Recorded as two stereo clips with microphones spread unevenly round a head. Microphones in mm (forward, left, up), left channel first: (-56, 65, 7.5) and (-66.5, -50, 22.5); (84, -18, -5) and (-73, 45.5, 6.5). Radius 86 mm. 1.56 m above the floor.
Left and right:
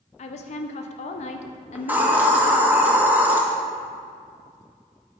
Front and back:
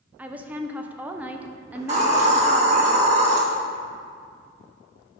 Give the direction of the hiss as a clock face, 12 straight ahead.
5 o'clock.